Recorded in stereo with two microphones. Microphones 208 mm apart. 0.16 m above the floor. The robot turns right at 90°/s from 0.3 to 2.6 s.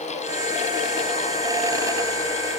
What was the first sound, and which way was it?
Only background noise.